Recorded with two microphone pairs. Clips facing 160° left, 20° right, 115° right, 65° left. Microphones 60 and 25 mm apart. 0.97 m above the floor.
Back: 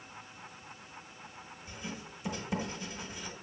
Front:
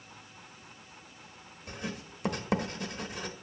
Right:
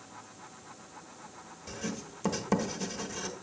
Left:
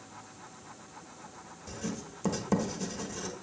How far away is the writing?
About 0.9 m.